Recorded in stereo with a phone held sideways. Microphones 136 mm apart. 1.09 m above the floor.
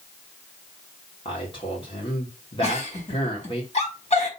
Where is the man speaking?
40° left (ahead or behind), 3 m.